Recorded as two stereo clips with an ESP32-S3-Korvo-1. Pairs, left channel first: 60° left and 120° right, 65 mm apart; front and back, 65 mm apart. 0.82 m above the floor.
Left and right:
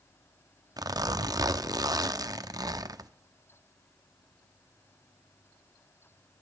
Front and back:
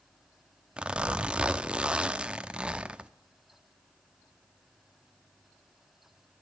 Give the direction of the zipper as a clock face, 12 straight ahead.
3 o'clock.